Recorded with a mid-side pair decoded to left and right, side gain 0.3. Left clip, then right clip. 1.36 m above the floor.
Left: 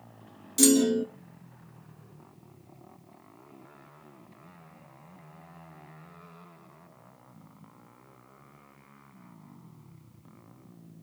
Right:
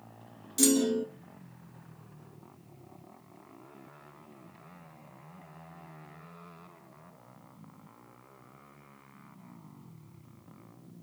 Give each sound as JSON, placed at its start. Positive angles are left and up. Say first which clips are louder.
{"t": 0.6, "sound": "a clunk", "louder": "left 4 dB", "azimuth_deg": 45, "distance_m": 1.8}